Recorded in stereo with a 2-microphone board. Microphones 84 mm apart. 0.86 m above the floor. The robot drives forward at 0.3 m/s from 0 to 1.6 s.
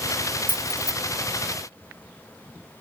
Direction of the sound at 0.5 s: 65° left (ahead or behind).